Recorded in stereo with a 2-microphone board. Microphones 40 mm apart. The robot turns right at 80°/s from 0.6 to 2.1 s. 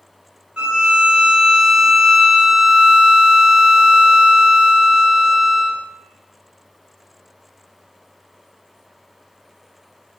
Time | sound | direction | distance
0.6 | a violin | 20° right (ahead or behind) | 1.0 m